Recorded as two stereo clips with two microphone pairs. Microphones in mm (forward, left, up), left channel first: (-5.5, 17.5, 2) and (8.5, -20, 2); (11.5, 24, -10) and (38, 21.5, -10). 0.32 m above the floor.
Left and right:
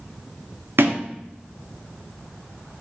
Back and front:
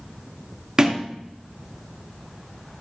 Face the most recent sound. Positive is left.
turn(degrees=-75)